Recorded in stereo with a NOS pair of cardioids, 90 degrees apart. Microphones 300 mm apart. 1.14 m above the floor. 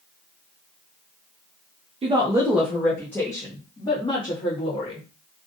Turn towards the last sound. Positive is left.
turn(degrees=20)